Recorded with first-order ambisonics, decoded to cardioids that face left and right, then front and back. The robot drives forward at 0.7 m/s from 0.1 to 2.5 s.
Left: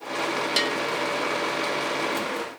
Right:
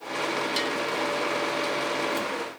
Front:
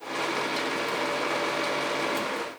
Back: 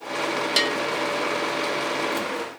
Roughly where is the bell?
Behind.